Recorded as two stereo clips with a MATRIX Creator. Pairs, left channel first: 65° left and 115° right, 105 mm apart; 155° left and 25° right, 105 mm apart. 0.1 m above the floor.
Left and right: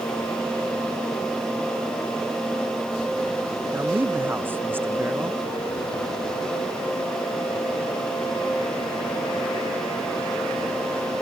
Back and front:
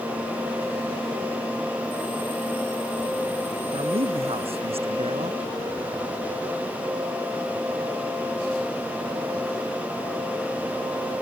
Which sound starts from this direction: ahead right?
A man speaking, at 3.7 s.